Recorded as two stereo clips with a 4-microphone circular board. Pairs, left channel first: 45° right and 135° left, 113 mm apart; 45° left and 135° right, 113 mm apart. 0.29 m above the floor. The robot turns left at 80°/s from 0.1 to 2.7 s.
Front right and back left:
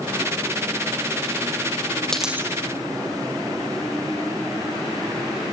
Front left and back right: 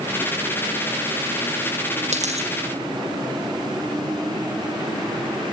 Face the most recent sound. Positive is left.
turn(degrees=-175)